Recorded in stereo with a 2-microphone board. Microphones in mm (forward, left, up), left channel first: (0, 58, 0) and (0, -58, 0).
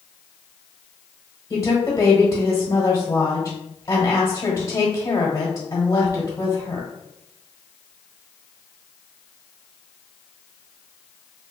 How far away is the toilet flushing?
No toilet flushing in this recording.